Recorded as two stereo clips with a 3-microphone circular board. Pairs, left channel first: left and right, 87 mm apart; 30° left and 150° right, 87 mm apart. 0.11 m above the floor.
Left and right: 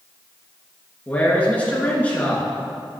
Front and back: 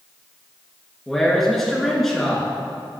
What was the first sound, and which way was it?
A man speaking, 115° left.